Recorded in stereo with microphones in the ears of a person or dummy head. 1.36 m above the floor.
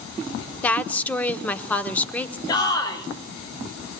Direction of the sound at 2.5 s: 25° left (ahead or behind).